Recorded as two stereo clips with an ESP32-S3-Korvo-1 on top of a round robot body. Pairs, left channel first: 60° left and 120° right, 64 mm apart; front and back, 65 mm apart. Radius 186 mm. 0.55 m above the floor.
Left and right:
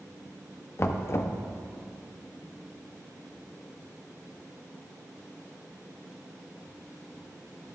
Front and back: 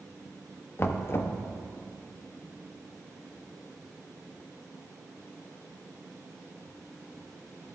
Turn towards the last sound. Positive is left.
turn(degrees=35)